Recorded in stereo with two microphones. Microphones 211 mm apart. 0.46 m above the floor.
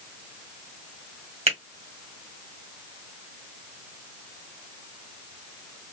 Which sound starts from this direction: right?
A finger snap, at 1.5 s.